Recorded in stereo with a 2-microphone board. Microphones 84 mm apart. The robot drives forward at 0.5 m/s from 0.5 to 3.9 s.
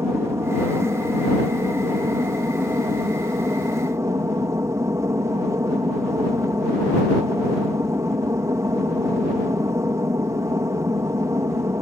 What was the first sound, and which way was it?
An aircraft, 35° right (ahead or behind).